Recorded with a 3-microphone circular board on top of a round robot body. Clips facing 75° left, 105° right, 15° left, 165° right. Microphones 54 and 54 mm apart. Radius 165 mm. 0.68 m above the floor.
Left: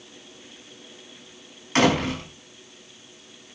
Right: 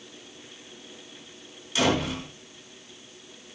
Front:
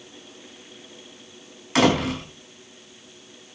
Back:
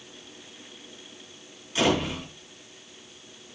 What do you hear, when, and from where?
1.8 s a door slam: 40° left, 5 m